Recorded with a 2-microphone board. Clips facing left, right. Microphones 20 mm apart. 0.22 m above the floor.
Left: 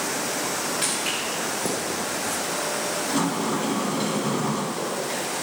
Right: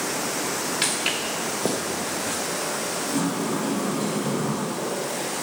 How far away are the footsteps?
About 1.7 m.